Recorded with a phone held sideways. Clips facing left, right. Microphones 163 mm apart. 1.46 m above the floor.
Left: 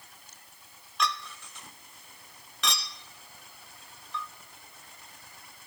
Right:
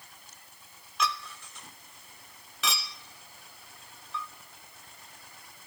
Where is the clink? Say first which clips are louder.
Even; centre (ahead or behind), 0.5 m.